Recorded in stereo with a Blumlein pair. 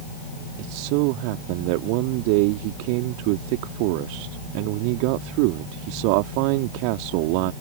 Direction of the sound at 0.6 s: 45° right.